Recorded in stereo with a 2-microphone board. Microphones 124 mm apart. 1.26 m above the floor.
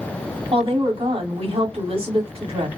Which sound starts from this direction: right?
A woman speaking, at 0.5 s.